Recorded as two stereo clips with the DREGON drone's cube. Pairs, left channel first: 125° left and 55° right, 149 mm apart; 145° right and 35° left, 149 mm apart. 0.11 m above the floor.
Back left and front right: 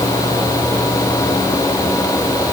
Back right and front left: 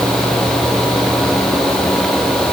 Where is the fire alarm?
No fire alarm in this recording.